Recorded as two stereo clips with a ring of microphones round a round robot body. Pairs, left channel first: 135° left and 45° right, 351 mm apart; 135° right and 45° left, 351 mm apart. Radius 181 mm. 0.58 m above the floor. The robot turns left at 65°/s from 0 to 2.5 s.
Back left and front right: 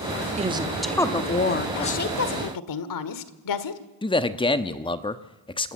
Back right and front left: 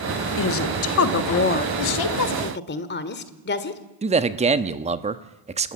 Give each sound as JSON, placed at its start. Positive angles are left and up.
{"t": 0.4, "sound": "a woman speaking", "azimuth_deg": -105, "distance_m": 1.3}
{"t": 1.8, "sound": "a woman speaking", "azimuth_deg": -150, "distance_m": 1.7}
{"t": 4.0, "sound": "a man speaking", "azimuth_deg": 80, "distance_m": 1.0}